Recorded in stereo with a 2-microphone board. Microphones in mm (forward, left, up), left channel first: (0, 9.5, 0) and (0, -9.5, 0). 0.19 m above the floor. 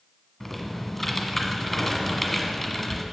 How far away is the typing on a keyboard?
About 1.5 m.